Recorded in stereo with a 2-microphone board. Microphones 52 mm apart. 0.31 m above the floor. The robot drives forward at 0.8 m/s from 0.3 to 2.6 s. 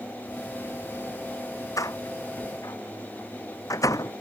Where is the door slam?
80° left; by 4.1 s 85° left.